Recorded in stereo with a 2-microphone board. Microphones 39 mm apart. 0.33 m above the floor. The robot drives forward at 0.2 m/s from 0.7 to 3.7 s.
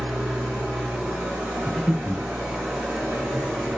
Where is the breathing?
10° left (ahead or behind), 0.9 m.